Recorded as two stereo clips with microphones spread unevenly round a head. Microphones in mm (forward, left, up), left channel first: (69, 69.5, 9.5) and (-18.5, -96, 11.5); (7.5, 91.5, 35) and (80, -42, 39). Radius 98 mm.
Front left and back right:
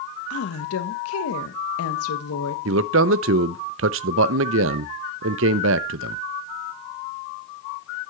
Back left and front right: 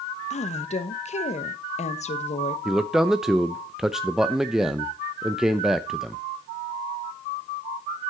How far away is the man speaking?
About 0.5 m.